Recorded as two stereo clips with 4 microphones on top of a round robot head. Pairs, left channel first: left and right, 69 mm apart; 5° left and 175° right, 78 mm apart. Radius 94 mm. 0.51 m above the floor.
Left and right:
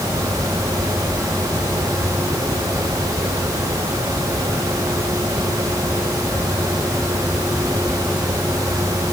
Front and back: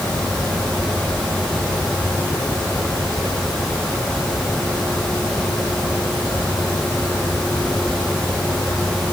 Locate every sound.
Only background noise.